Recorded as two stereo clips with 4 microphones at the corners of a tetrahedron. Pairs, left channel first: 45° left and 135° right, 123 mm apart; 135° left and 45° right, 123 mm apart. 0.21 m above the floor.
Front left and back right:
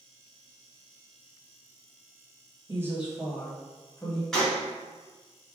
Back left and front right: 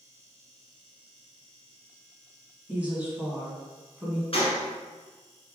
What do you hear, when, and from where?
2.7 s a woman speaking: 110° right, 1.3 m; by 4.2 s 20° left, 1.5 m
4.3 s a gunshot: 130° left, 2 m